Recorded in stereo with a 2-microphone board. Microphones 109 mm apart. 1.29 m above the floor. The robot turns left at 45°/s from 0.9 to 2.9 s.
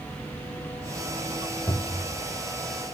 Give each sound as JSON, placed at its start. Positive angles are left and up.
{"t": 1.7, "sound": "a cupboard door", "side_deg": 35, "distance_m": 2.0}